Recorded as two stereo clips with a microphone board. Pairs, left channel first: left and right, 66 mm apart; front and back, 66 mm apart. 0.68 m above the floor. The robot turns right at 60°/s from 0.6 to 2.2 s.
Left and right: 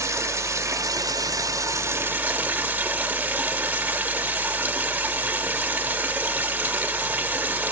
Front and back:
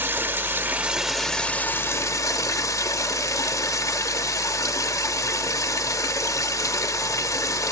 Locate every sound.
0.0 s running water: 125° right, 0.9 m; by 7.7 s 30° right, 0.9 m